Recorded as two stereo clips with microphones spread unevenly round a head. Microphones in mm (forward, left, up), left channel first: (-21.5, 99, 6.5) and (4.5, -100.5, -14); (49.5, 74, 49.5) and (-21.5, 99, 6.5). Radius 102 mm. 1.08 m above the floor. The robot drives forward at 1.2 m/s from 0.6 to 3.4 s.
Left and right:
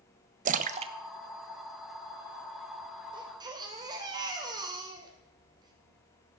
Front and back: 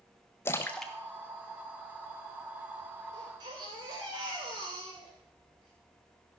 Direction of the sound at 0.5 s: 105° right.